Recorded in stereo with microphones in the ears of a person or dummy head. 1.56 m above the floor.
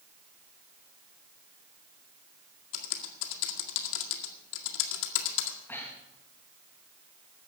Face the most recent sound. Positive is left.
turn(degrees=10)  # may be behind; listen again after turning